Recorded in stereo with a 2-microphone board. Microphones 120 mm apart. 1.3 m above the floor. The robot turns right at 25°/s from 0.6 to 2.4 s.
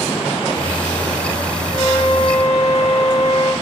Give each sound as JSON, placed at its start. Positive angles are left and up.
{"t": 1.7, "sound": "a flute", "side_deg": -30, "distance_m": 7.0}